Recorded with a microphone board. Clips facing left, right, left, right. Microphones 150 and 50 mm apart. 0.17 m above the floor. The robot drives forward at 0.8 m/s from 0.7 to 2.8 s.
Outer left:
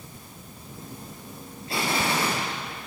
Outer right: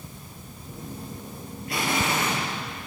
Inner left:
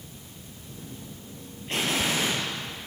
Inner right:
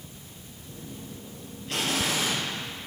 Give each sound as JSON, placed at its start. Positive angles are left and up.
{"t": 1.7, "sound": "an explosion", "side_deg": 30, "distance_m": 3.0}